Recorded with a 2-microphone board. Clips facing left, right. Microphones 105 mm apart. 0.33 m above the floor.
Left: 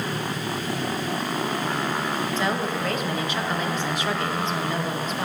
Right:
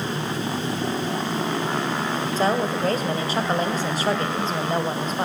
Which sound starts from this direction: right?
A woman speaking, at 2.4 s.